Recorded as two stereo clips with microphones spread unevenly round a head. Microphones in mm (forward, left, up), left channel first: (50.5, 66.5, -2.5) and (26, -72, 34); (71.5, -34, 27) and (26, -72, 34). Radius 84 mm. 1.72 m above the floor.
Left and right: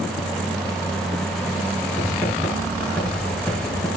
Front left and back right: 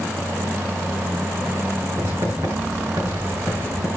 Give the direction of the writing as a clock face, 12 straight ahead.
6 o'clock.